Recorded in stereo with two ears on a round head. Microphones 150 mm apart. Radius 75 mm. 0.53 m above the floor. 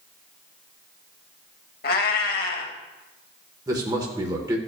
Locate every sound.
1.8 s a cat meowing: 60° left (ahead or behind), 0.8 m
3.7 s a man speaking: 20° right (ahead or behind), 1.2 m